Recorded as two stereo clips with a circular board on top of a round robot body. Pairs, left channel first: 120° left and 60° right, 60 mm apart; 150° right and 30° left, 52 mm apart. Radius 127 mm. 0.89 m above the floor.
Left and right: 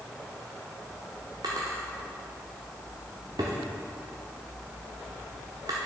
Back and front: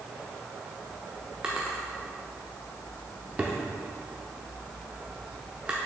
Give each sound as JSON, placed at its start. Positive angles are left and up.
{"t": 1.4, "sound": "a drawer", "azimuth_deg": -40, "distance_m": 0.5}